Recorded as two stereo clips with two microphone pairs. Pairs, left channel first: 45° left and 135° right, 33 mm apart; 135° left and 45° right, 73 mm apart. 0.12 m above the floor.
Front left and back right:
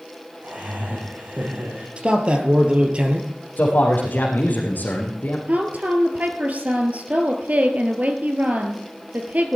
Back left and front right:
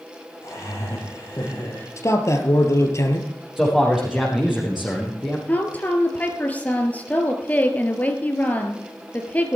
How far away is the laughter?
About 6 m.